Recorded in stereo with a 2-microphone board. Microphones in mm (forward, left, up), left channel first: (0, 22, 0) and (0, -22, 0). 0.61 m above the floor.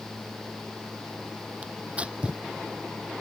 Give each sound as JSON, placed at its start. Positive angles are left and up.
{"t": 1.6, "sound": "tearing paper", "side_deg": -25}